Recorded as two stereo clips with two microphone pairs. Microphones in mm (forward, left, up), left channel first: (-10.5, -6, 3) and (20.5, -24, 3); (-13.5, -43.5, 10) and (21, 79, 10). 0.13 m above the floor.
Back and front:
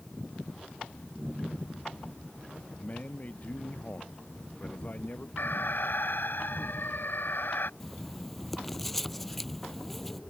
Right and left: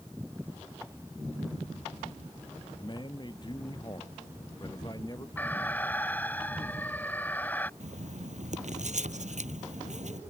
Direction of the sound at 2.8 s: 160° right.